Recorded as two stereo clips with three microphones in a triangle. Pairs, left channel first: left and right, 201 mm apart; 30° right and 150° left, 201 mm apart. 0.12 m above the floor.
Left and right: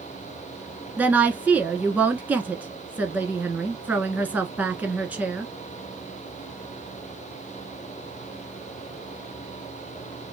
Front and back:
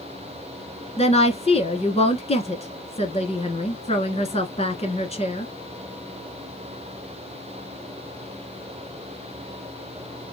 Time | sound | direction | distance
1.0 | a woman speaking | 15° right | 1.2 m